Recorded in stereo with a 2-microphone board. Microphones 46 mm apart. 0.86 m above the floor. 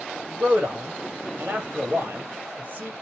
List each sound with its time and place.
0.3 s a man speaking: 45° right (ahead or behind), 1.6 m